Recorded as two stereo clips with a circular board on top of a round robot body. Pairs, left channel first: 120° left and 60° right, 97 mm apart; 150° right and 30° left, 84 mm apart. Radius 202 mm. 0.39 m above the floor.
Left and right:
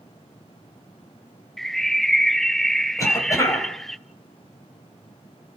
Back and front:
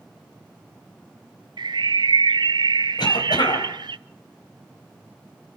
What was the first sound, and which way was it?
A bird, 35° left.